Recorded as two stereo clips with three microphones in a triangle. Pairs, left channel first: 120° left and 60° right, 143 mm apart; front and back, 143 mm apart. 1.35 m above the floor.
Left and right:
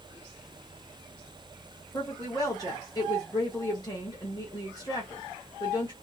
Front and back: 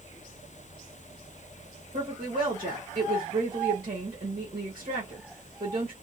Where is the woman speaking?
Straight behind, 1.4 m.